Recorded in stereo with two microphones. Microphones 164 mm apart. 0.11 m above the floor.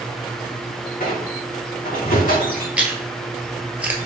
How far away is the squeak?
About 1.3 m.